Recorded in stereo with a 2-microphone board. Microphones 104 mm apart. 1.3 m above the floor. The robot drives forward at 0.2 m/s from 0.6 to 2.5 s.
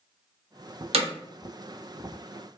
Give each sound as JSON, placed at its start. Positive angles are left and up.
{"t": 0.9, "sound": "hammering", "side_deg": -80, "distance_m": 0.6}